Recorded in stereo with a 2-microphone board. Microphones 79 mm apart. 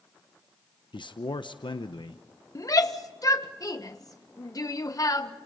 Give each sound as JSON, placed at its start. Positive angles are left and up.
{"t": 0.9, "sound": "a man speaking", "side_deg": 70, "distance_m": 0.8}
{"t": 2.5, "sound": "a shout", "side_deg": 45, "distance_m": 1.4}